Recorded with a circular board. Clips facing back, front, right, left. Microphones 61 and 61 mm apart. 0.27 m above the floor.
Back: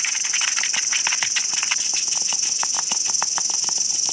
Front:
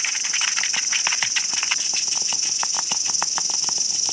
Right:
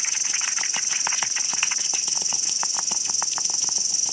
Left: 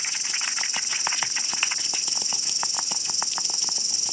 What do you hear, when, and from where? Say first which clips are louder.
0.0 s an insect: even, even; 110° left, 4.5 m